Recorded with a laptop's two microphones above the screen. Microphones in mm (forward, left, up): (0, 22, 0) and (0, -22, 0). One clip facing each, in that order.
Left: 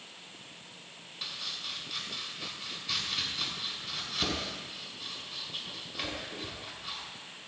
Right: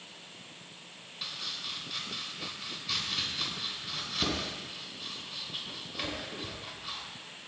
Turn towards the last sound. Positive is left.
turn(degrees=0)  # may be behind; listen again after turning